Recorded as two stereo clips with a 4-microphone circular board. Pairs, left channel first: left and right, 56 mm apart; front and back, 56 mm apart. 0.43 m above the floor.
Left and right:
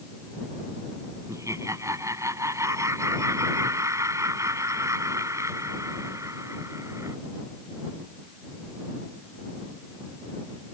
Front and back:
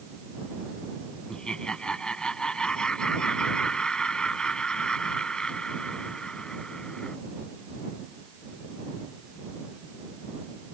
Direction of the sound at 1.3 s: 75° right.